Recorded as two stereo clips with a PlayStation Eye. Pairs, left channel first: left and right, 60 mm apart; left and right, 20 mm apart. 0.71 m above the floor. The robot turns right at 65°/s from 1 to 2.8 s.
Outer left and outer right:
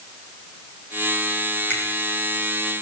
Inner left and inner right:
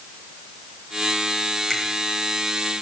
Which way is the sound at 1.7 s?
30° left (ahead or behind).